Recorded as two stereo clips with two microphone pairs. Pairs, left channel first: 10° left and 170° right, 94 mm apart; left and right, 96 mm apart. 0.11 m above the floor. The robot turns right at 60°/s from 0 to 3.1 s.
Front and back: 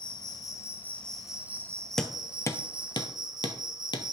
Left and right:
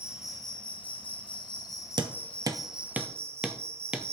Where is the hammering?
80° right, 0.7 m; by 4.0 s 10° right, 0.7 m.